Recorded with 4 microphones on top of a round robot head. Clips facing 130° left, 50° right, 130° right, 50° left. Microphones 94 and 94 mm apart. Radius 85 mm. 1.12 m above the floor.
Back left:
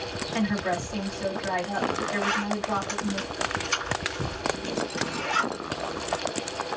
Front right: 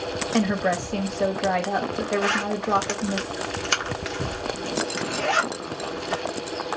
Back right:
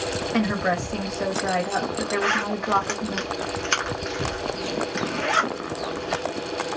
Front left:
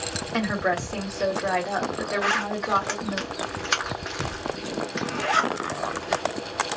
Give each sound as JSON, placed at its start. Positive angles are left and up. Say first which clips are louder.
{"t": 0.3, "sound": "a woman speaking", "louder": "front right 4 dB, back right 1 dB", "azimuth_deg": -35, "distance_m": 1.3}
{"t": 2.2, "sound": "a zipper", "louder": "front right 3 dB, back right 1 dB", "azimuth_deg": -30, "distance_m": 1.0}